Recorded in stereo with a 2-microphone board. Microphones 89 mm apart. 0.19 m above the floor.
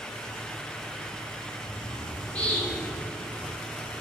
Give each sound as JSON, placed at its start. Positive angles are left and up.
{"t": 1.7, "sound": "a bird", "side_deg": 15, "distance_m": 3.5}